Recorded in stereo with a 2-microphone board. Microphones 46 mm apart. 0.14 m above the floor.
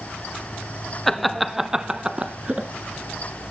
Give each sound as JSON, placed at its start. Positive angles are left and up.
{"t": 1.1, "sound": "laughter", "side_deg": 5, "distance_m": 1.2}